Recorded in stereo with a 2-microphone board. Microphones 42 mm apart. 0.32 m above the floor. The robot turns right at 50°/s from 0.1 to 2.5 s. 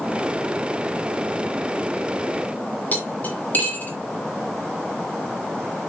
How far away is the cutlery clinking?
About 2 m.